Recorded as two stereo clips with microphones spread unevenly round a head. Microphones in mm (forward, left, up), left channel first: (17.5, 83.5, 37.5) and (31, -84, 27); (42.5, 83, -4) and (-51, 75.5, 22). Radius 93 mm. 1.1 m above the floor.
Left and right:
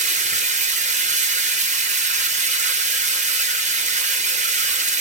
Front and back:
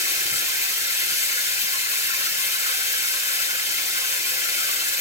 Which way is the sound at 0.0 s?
35° right.